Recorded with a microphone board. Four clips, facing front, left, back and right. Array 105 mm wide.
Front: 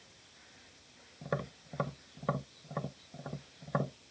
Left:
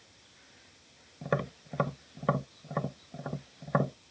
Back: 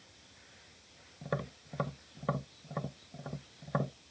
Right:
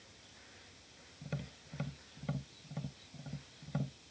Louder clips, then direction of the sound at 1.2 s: Left 14 dB, even; 90° left.